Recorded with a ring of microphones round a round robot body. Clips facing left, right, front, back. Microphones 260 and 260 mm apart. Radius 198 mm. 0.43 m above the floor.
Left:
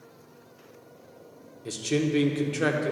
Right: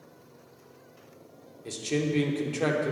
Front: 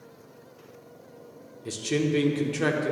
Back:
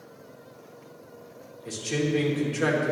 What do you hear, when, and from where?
1.6 s a man speaking: 20° left, 1.1 m